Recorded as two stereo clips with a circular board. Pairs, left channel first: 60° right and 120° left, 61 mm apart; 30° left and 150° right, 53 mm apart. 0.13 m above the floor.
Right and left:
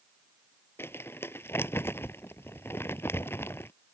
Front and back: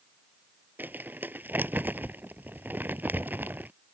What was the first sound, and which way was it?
Crumpling, 105° right.